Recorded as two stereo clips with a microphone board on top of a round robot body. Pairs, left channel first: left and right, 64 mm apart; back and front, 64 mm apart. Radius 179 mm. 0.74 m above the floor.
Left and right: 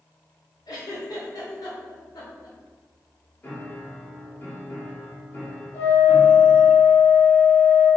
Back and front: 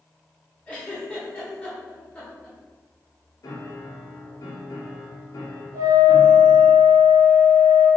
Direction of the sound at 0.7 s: 105° left.